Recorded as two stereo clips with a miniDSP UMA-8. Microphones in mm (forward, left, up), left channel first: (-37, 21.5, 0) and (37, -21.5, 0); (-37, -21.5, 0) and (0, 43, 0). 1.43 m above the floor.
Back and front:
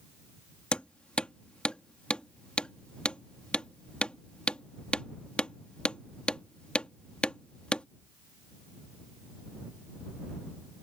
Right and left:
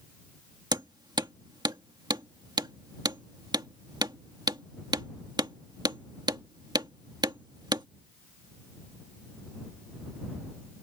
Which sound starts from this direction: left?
Hammering, at 0.7 s.